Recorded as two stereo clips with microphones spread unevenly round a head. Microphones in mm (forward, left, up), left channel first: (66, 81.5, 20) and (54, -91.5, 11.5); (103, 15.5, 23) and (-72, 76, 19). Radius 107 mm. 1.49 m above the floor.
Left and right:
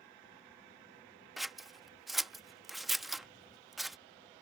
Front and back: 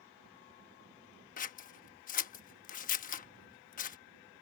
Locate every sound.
1.4 s scissors: straight ahead